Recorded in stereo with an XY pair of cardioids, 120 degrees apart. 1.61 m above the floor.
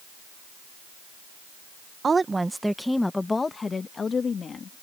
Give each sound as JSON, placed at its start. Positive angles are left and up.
{"t": 2.0, "sound": "a woman speaking", "azimuth_deg": -30}